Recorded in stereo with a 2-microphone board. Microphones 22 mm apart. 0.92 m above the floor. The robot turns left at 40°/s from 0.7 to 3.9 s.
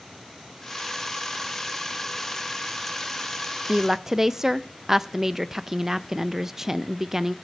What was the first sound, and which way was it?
A woman speaking, 25° right (ahead or behind).